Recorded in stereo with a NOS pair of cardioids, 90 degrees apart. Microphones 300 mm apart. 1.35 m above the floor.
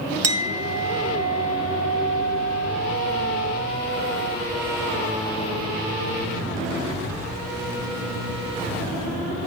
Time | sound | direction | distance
0.2 | a clink | 55° right | 0.9 m